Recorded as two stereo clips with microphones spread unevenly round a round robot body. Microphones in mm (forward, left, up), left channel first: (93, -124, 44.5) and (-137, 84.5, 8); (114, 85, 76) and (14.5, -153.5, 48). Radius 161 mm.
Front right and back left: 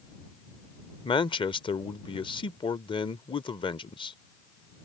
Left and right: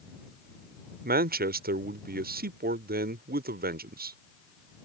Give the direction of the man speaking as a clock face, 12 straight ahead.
4 o'clock.